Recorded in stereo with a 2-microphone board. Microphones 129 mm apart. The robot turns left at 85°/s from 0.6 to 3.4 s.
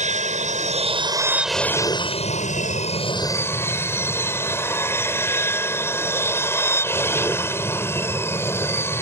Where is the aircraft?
100° right; by 9.0 s 20° left.